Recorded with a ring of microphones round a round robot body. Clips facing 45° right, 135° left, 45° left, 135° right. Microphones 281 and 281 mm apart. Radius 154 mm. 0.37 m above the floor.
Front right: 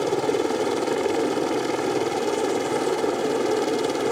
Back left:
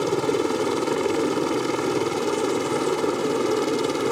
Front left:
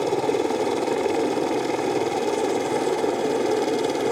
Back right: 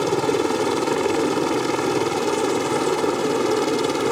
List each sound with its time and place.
0.0 s a helicopter: 170° right; by 4.1 s 175° right